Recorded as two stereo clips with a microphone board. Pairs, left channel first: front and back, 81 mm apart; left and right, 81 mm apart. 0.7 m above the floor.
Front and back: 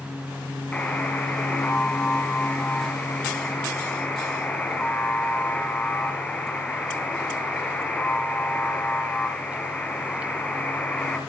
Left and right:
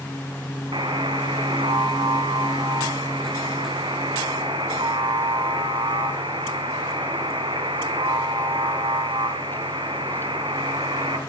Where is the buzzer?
75° right, 3 m.